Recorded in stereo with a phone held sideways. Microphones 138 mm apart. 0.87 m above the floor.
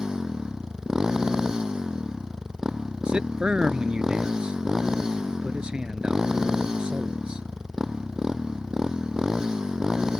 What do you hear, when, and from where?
0.0 s a motorcycle: 5° right (ahead or behind)
3.0 s a man speaking: 5° right (ahead or behind)